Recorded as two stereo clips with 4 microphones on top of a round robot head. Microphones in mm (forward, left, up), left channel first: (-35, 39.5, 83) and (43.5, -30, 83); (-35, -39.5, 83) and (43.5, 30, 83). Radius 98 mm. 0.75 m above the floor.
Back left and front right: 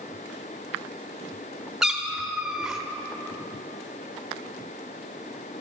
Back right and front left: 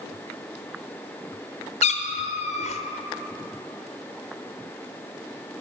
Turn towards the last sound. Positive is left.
turn(degrees=-125)